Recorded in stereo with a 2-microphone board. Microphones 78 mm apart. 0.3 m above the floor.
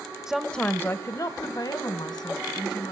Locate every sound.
0.3 s a woman speaking: 10° right (ahead or behind), 0.9 m; by 2.9 s 70° left (ahead or behind), 3 m